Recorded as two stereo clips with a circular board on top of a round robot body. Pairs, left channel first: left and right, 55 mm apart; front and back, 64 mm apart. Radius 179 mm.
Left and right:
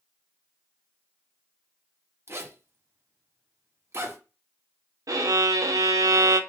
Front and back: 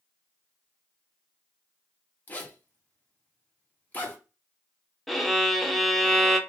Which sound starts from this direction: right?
A violin, at 5.1 s.